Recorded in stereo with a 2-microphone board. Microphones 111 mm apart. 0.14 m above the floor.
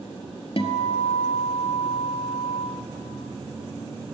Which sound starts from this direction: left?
A guitar, at 0.6 s.